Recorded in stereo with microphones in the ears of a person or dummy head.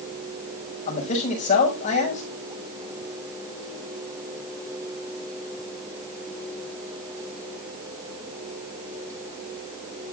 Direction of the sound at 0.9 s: 35° left (ahead or behind).